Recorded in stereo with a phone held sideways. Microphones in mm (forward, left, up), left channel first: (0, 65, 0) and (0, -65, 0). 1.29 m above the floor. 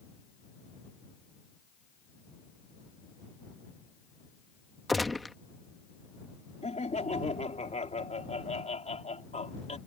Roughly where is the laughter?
Left.